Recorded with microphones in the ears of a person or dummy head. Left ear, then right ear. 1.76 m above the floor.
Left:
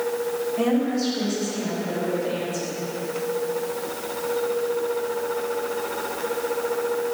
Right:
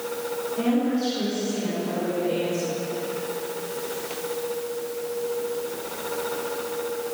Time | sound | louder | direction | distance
0.6 | a woman speaking | even | 35° left (ahead or behind) | 2.5 m